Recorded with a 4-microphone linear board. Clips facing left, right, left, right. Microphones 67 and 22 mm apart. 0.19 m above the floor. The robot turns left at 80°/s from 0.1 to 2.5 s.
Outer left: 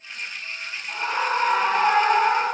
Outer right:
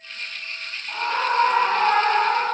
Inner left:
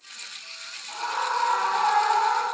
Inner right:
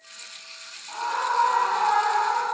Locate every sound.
0.9 s a scream: 20° right (ahead or behind), 1.6 m; by 2.5 s 15° left (ahead or behind), 1.6 m